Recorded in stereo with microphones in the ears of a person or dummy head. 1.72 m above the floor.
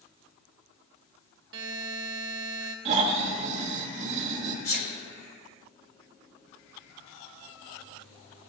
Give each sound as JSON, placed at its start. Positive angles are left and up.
{"t": 1.5, "sound": "a buzzer", "side_deg": -65, "distance_m": 1.3}
{"t": 2.9, "sound": "snoring", "side_deg": -35, "distance_m": 1.4}
{"t": 4.7, "sound": "a sneeze", "side_deg": 50, "distance_m": 1.9}